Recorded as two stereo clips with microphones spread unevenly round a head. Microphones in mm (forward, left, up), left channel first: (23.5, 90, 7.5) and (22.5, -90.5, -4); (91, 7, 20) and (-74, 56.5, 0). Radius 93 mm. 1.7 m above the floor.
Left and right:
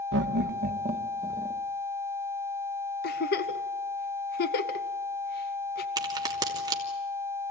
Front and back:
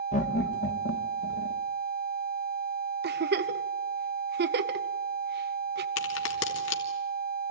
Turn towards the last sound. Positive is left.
turn(degrees=-20)